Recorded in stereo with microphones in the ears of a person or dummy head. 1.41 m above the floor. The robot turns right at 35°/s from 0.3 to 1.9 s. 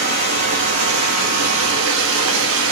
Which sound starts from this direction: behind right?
Running water, at 0.0 s.